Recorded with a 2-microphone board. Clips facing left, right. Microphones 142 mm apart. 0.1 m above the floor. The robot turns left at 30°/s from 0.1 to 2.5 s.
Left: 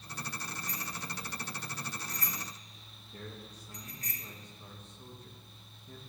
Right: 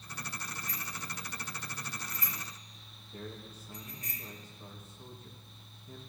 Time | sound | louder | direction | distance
0.7 | a bicycle bell | left 2 dB | 35° left (ahead or behind) | 4 m
3.1 | a man speaking | right 2 dB | 5° right (ahead or behind) | 3 m